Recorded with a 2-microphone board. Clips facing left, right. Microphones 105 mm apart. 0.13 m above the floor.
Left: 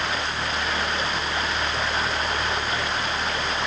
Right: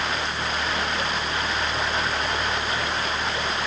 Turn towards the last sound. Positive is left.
No sound to turn to.